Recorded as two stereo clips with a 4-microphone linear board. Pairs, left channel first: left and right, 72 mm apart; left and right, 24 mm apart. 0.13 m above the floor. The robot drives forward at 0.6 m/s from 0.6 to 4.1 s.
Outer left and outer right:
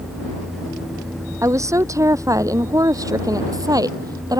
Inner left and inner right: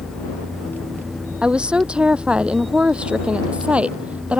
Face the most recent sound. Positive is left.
turn(degrees=-60)  # may be behind; listen again after turning